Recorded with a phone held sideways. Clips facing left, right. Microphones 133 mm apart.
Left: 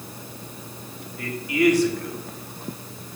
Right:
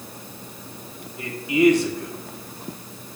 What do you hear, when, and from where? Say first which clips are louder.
1.2 s a man speaking: right 3 dB; 25° right (ahead or behind), 1.4 m